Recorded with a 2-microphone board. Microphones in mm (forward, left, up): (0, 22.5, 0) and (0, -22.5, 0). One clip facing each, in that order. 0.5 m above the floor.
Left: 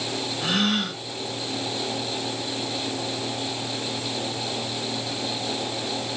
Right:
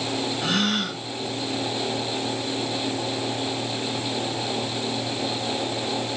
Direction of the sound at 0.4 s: 10° left (ahead or behind).